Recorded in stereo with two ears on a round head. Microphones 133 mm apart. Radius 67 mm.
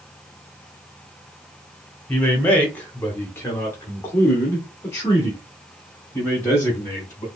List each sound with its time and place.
2.1 s a man speaking: 10° left (ahead or behind), 1.4 m; by 7.3 s 15° left (ahead or behind), 2.5 m